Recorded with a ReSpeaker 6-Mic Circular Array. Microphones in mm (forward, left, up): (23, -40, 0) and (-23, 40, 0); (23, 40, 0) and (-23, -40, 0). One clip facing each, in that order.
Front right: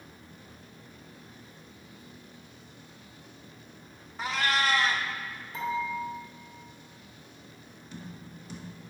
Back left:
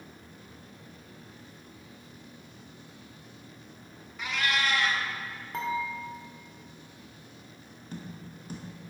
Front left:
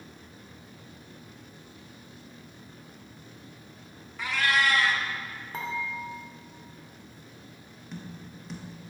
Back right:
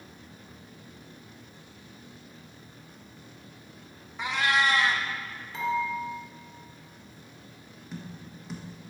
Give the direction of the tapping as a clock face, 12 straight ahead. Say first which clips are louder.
Back left 2 dB, even; 7 o'clock.